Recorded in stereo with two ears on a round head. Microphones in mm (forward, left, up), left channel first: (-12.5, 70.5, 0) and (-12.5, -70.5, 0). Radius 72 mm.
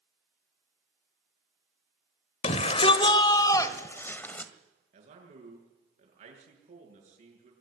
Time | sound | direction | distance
2.4 | a shout | 45° left (ahead or behind) | 1.5 m
4.9 | a man speaking | 50° right (ahead or behind) | 7.5 m